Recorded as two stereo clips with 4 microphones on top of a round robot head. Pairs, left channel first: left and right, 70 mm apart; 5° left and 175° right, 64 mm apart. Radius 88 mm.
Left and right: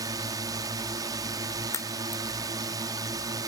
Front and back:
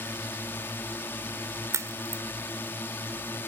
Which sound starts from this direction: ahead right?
A drone, at 0.0 s.